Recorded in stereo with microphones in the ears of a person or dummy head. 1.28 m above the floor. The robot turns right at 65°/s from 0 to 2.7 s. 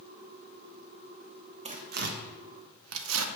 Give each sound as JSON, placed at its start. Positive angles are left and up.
{"t": 1.6, "sound": "tearing paper", "side_deg": -30, "distance_m": 1.0}